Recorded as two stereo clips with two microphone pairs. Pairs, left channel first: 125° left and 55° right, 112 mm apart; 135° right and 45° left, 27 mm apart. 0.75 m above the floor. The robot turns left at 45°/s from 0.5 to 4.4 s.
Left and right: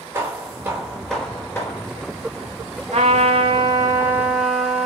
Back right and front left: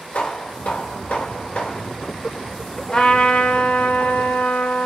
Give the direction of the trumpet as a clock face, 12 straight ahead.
3 o'clock.